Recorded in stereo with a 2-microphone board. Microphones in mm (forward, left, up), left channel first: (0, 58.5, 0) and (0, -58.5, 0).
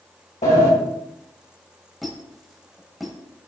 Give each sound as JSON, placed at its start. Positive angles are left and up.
{"t": 0.4, "sound": "a sliding door", "side_deg": 85, "distance_m": 1.6}
{"t": 2.0, "sound": "a squeak", "side_deg": 0, "distance_m": 1.0}